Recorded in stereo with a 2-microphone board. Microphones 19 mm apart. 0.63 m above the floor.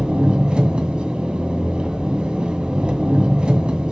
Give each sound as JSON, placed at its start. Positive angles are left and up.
{"t": 0.0, "sound": "an engine running", "side_deg": -50, "distance_m": 2.0}